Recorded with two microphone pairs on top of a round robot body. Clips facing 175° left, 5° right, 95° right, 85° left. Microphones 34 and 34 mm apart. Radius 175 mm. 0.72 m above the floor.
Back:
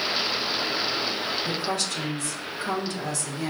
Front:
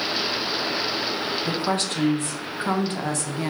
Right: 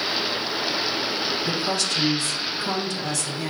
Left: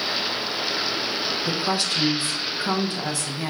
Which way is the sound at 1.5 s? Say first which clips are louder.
Front 3 dB, even; 25° left.